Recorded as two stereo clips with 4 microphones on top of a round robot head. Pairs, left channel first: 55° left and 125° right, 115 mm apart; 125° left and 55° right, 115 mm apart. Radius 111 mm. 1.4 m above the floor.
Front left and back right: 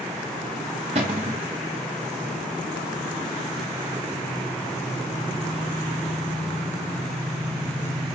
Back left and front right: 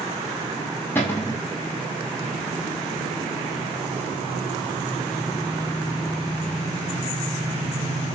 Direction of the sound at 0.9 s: 160° right.